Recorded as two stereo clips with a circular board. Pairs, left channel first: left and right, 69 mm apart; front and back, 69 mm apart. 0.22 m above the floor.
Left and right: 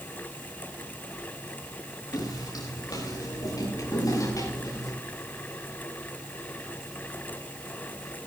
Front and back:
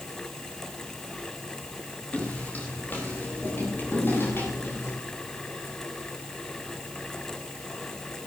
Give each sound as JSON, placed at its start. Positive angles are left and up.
{"t": 2.1, "sound": "footsteps", "azimuth_deg": 70, "distance_m": 8.5}